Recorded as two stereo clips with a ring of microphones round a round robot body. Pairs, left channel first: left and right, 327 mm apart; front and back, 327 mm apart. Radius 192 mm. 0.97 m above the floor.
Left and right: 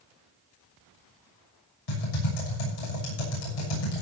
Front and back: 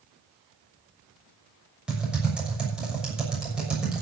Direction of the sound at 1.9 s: 95° left.